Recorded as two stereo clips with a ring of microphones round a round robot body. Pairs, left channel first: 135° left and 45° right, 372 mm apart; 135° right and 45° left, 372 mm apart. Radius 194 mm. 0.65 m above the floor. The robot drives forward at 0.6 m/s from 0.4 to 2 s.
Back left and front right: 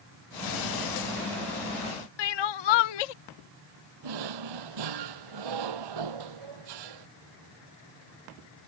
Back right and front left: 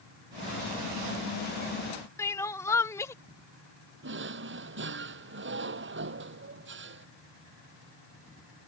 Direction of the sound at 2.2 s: 140° left.